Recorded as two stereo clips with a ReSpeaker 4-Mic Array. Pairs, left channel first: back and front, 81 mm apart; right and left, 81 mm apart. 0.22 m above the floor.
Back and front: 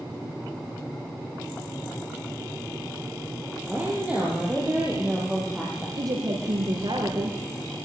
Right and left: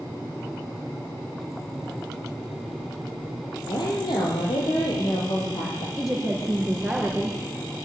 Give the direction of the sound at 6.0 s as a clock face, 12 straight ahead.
12 o'clock.